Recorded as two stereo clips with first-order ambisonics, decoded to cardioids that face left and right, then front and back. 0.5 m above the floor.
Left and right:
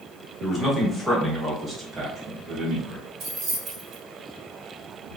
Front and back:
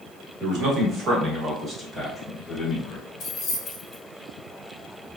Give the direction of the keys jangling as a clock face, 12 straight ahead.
2 o'clock.